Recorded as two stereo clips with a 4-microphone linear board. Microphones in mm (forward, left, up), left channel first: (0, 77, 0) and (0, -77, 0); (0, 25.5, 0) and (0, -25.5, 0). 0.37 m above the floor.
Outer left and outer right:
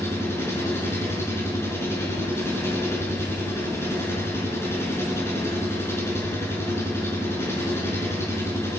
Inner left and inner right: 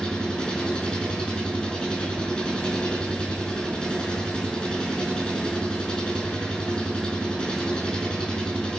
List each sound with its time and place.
0.0 s an engine running: 15° left (ahead or behind), 5 m